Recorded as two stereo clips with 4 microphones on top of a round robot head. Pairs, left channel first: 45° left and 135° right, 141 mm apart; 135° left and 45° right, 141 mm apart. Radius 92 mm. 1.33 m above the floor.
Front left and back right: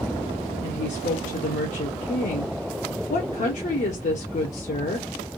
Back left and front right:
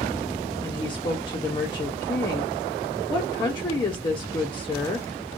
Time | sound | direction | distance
0.6 | a woman speaking | 75° left | 0.8 m